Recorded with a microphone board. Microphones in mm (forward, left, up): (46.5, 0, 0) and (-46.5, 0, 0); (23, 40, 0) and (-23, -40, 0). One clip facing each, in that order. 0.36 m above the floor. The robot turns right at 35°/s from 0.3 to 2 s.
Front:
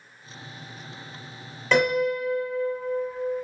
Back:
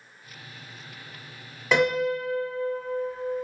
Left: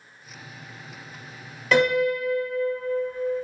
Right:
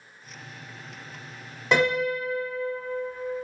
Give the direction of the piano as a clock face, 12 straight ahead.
4 o'clock.